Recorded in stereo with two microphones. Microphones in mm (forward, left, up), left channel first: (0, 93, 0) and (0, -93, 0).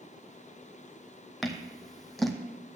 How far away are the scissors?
About 0.9 m.